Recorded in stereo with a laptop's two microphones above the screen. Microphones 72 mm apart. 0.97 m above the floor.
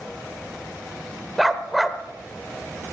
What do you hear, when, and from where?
1.4 s a dog barking: centre (ahead or behind), 1.0 m